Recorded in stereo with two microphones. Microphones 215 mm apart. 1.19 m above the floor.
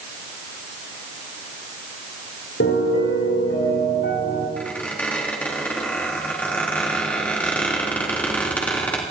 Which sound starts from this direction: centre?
A squeak, at 4.6 s.